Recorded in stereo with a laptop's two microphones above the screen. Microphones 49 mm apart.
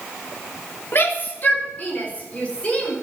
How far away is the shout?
About 3 m.